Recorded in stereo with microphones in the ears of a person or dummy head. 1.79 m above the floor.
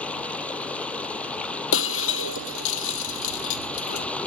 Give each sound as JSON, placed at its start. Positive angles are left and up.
{"t": 0.0, "sound": "running water", "side_deg": 10}
{"t": 1.7, "sound": "breaking glass", "side_deg": 70}